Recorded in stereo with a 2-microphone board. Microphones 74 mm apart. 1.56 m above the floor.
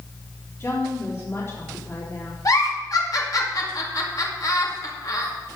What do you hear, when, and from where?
0.6 s a woman speaking: 40° left (ahead or behind), 3.5 m
2.5 s a giggle: 55° left (ahead or behind), 2.5 m